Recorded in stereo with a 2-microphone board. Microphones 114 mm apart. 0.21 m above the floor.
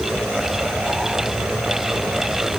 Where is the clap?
I don't hear a clap.